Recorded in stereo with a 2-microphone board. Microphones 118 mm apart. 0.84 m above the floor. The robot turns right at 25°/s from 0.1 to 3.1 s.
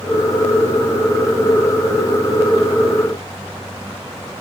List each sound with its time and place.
Only background noise.